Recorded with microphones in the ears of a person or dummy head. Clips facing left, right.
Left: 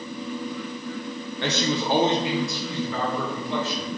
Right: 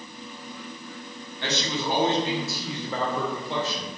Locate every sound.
1.4 s a man speaking: 55° left (ahead or behind), 0.6 m; by 3.9 s 35° right (ahead or behind), 1.1 m